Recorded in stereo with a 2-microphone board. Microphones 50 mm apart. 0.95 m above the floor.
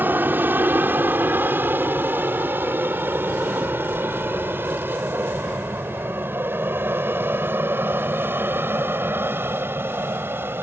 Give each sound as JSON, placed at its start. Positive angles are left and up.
{"t": 0.0, "sound": "an aircraft", "side_deg": -40}